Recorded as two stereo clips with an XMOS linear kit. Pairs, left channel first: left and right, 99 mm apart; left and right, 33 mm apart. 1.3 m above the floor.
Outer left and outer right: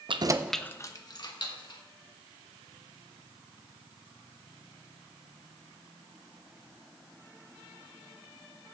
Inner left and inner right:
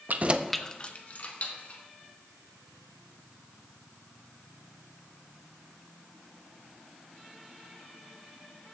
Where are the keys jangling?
55° right (ahead or behind), 0.6 m; by 1.8 s 55° left (ahead or behind), 2.0 m.